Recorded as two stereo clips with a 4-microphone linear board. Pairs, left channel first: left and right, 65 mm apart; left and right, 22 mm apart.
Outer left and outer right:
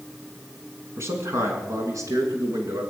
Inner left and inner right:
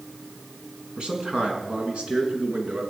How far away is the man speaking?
About 6 m.